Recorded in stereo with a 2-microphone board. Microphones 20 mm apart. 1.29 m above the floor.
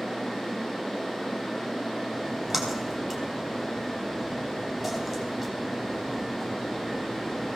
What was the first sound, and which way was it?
A splash, 20° right (ahead or behind).